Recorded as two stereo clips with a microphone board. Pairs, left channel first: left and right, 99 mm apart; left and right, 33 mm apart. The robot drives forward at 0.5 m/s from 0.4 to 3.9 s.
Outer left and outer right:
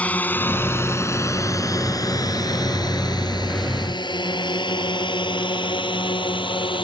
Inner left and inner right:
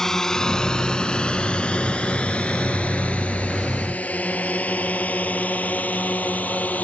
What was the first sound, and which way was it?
A drone, 15° left (ahead or behind).